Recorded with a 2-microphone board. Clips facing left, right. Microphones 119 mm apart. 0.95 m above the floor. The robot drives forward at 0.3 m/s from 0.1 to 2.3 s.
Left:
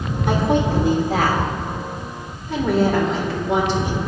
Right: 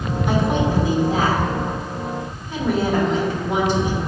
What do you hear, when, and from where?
0.3 s a woman speaking: 70° left (ahead or behind), 1.9 m; by 4.0 s 65° left (ahead or behind), 2.0 m